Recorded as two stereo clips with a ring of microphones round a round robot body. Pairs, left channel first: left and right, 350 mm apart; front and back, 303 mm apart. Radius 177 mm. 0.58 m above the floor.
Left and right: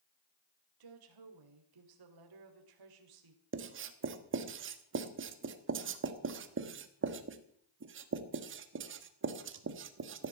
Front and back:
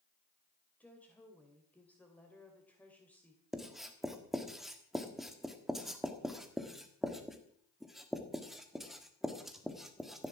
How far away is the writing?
About 1.3 m.